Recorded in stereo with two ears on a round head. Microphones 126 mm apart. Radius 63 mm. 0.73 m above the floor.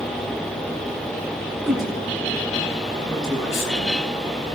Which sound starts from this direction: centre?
A woman speaking, at 1.6 s.